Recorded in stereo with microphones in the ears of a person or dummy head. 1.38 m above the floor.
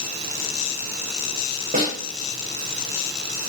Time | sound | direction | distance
1.7 | a snare drum | 40° right (ahead or behind) | 6 m